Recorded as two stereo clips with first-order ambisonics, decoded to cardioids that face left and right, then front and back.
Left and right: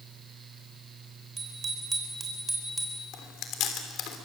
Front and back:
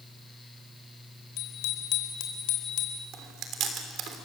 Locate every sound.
1.4 s a bicycle bell: 25° right, 4 m; by 3.0 s straight ahead, 3.5 m
3.1 s chewing: 135° left, 3 m